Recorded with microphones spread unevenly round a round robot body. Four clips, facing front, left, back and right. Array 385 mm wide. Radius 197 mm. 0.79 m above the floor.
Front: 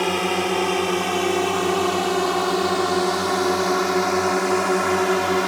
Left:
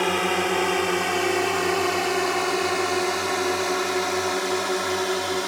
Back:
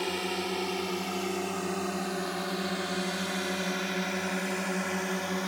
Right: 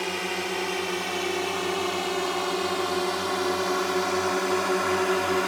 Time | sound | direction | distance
0.0 | a drone | 35° left | ?